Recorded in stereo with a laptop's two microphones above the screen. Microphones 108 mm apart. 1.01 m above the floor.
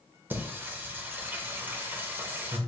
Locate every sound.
0.3 s singing: 20° right (ahead or behind), 0.7 m